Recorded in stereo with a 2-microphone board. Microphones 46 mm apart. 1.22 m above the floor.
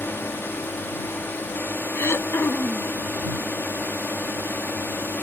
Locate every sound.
0.0 s a drone: 60° left (ahead or behind)
1.9 s throat clearing: 80° left